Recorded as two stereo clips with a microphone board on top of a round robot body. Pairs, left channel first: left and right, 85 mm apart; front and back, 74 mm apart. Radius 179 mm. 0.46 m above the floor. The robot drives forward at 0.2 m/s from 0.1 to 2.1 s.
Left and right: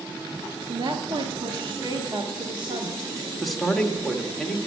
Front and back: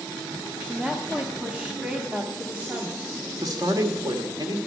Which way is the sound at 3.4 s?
Straight behind.